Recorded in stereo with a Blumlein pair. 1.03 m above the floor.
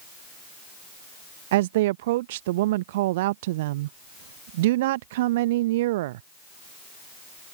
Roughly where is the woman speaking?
Ahead right.